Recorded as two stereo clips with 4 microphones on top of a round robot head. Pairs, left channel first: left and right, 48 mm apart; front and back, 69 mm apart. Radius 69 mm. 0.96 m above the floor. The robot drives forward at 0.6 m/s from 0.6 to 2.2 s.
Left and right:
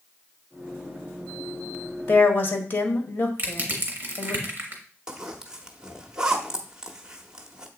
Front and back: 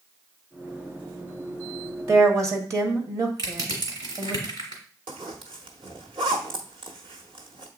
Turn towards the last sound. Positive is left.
turn(degrees=-165)